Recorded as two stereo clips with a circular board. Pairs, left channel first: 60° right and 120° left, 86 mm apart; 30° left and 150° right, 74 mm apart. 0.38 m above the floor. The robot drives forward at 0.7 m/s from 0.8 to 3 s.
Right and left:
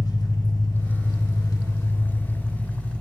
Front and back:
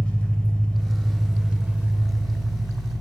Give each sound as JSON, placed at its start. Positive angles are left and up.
{"t": 0.0, "sound": "an engine running", "azimuth_deg": -40, "distance_m": 1.1}